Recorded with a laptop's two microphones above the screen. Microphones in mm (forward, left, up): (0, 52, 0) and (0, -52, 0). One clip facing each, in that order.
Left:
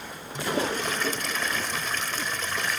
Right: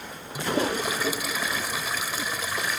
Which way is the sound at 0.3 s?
10° right (ahead or behind).